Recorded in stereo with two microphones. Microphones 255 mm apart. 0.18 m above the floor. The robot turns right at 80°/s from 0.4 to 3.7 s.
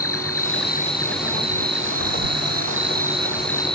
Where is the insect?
115° left; by 3.8 s 20° left.